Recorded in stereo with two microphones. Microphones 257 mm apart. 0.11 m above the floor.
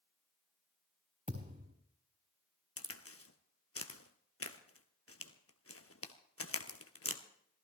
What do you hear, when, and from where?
1.3 s a thud: 35° right (ahead or behind), 4.5 m
2.8 s a crack: 65° left (ahead or behind), 1.2 m